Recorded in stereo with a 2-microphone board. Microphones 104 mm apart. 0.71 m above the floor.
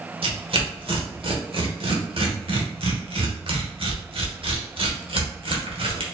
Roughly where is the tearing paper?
Right.